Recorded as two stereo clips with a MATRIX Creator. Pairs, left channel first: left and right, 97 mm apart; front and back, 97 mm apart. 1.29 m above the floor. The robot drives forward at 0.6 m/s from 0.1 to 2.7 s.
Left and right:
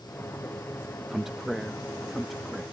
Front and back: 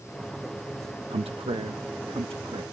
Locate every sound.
1.1 s a man speaking: straight behind